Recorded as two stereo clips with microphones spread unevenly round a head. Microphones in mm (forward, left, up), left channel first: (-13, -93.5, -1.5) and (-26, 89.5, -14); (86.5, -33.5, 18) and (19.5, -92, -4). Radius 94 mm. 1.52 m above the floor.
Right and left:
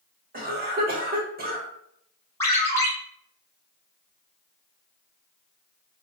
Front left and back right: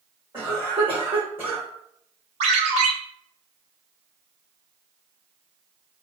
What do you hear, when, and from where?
0.3 s a cough: 140° left, 1.5 m
2.4 s a ringtone: 160° right, 1.2 m